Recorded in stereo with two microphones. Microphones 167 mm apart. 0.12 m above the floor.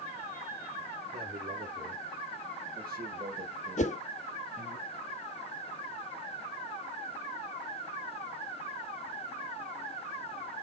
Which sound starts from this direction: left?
A whoosh, at 3.8 s.